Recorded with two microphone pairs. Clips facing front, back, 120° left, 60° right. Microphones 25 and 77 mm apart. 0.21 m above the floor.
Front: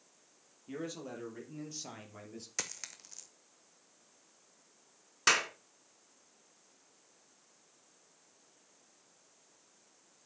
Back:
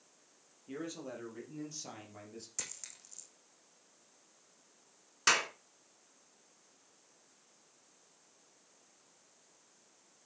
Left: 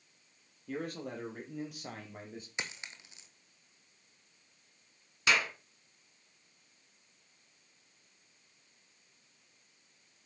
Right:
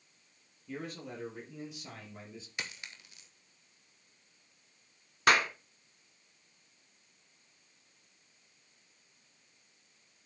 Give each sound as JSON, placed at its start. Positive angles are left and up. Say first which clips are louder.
{"t": 0.7, "sound": "a man speaking", "louder": "front 1 dB, left 3 dB", "azimuth_deg": 90, "distance_m": 6.0}
{"t": 2.6, "sound": "a dropped coin", "louder": "front 8 dB, left 1 dB", "azimuth_deg": 55, "distance_m": 1.6}
{"t": 5.3, "sound": "a clap", "louder": "front 1 dB, right 4 dB", "azimuth_deg": -80, "distance_m": 2.0}